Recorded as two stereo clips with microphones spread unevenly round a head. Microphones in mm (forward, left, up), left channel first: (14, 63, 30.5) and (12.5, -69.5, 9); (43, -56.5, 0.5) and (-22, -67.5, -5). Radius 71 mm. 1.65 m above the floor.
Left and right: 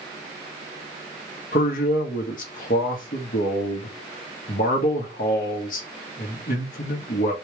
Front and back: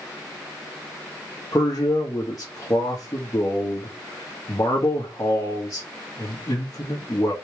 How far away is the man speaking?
About 1.7 m.